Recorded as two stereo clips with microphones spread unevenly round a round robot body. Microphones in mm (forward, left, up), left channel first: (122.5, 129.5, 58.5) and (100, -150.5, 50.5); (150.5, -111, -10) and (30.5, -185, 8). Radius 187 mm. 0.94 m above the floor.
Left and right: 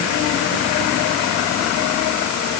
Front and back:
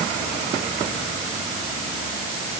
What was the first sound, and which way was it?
Only background noise.